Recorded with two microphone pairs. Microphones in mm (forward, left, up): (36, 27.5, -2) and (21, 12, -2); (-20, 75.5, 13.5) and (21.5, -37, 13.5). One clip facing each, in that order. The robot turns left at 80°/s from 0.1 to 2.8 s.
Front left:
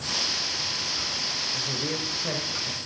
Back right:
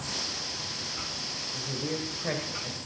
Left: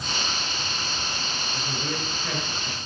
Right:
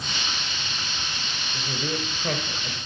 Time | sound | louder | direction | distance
1.5 | a man speaking | front left 5 dB, right 3 dB | 10° left | 1.8 m